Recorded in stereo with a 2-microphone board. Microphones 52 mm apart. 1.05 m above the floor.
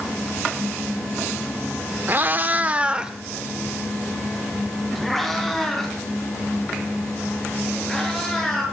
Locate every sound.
2.1 s a cat meowing: 35° right (ahead or behind), 0.8 m; by 8.6 s 5° left (ahead or behind), 6.5 m